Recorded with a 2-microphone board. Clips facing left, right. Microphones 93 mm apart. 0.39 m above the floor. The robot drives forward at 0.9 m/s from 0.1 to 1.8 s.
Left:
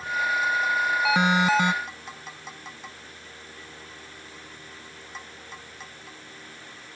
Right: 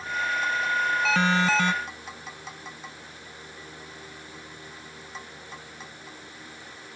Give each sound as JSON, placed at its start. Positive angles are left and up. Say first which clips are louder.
{"t": 1.1, "sound": "an alarm", "louder": "left 2 dB", "side_deg": 15}